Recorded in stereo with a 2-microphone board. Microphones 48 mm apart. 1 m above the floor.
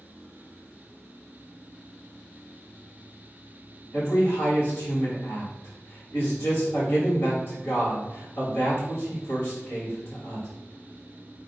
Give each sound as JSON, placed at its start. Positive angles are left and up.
{"t": 3.9, "sound": "a man speaking", "side_deg": 55, "distance_m": 1.8}